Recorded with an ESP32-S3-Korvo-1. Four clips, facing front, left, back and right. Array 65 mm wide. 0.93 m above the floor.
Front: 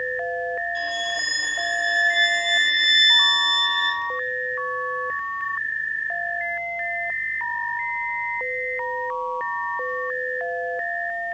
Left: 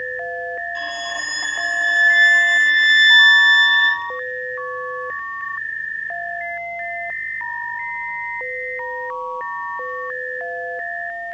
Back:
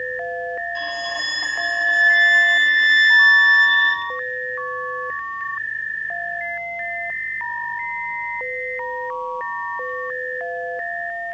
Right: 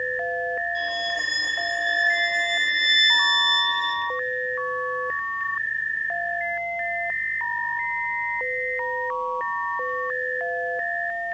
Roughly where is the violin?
Behind left.